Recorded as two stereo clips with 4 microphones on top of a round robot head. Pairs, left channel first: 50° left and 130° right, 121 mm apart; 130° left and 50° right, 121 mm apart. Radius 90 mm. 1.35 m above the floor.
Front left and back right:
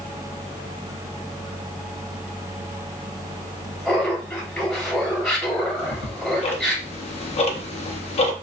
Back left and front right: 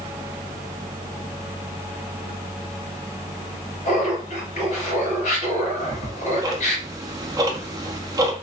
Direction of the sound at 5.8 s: 15° left.